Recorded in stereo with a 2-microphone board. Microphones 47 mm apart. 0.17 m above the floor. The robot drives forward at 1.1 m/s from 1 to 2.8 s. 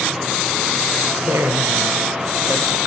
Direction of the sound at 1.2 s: 70° right (ahead or behind).